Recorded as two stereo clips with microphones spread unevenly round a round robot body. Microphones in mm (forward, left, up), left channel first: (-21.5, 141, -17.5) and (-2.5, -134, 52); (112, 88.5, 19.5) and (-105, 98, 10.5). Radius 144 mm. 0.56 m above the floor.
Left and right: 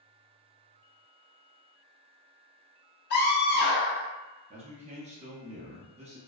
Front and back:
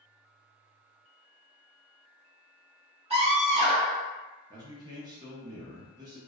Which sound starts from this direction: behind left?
A scream, at 3.1 s.